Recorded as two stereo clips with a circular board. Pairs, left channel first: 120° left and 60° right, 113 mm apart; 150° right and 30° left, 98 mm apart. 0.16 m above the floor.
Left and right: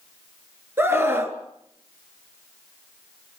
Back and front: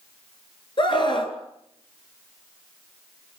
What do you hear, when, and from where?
0.8 s a scream: 125° right, 3 m